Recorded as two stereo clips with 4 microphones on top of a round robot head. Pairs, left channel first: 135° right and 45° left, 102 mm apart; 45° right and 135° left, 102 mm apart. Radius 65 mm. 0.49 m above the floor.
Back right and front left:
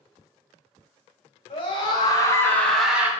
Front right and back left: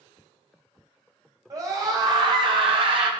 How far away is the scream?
About 2.5 m.